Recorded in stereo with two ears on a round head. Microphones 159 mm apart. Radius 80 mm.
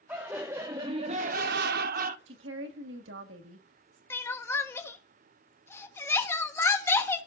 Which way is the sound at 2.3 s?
70° right (ahead or behind).